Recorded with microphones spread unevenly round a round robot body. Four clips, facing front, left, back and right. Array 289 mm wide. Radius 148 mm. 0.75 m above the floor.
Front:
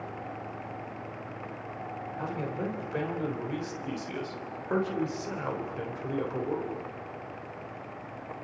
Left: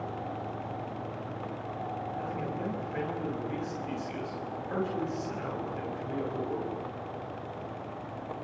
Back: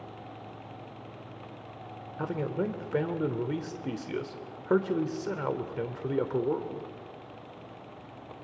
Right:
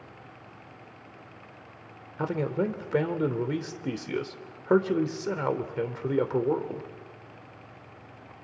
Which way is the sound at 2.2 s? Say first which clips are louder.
Right 11 dB, back 4 dB; 110° right.